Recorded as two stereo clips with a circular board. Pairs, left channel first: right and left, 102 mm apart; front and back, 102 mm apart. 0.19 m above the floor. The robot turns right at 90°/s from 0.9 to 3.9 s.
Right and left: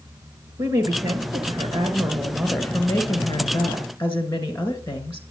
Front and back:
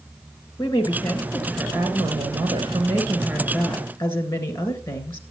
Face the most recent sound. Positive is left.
turn(degrees=-30)